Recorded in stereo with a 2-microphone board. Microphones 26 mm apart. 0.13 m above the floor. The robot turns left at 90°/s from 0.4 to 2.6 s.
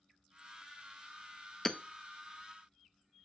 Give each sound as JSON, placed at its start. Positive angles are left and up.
{"t": 1.6, "sound": "hammering", "side_deg": 10, "distance_m": 0.8}